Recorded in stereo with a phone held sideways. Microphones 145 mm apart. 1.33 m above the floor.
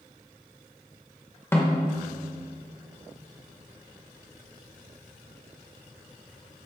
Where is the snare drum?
15° left (ahead or behind), 1.1 m.